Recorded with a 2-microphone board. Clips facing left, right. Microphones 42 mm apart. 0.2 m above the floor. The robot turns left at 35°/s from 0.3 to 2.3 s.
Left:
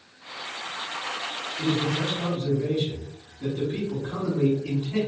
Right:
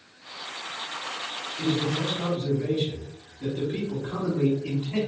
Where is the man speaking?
35° right (ahead or behind), 2.0 m.